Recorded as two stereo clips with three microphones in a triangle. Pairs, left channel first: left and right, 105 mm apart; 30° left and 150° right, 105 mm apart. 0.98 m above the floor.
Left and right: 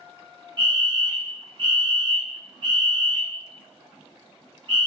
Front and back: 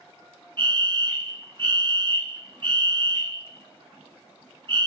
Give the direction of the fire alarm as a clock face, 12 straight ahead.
4 o'clock.